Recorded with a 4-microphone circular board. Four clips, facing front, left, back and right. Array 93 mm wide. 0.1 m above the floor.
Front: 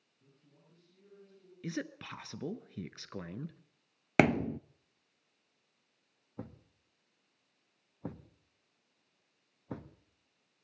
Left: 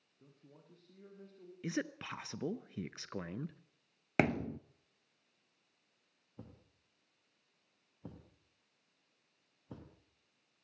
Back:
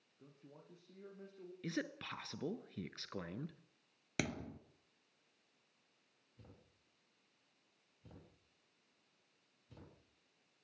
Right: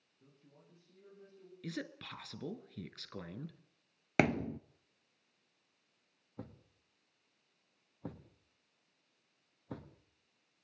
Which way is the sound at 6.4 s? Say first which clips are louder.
Right 5 dB, front 16 dB; 20° right.